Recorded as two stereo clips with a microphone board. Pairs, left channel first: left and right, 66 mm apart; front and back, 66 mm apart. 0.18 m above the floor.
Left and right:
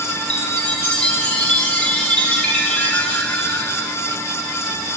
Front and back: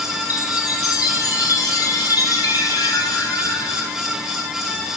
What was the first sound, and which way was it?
A chime, 15° left.